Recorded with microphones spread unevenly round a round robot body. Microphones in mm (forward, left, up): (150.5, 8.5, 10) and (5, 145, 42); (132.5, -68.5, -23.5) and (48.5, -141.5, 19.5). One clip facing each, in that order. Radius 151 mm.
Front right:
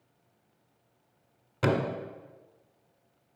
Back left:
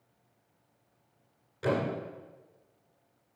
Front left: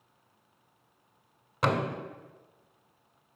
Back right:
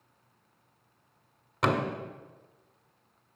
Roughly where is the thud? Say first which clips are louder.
Front right 2 dB, back right 1 dB; ahead right.